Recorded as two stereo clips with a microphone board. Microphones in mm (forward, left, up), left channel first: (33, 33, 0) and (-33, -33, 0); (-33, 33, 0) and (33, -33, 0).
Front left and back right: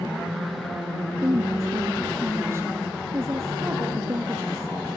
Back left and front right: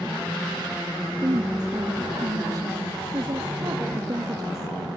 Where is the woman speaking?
85° right, 1.4 m.